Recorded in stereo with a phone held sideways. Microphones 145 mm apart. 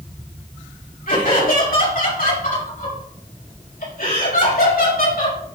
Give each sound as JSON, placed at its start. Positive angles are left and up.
{"t": 1.1, "sound": "laughter", "side_deg": 70, "distance_m": 6.0}